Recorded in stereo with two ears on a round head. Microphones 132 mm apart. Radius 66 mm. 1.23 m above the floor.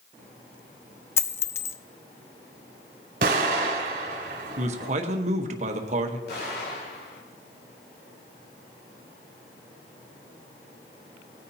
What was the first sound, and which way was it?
A dropped coin, 20° left (ahead or behind).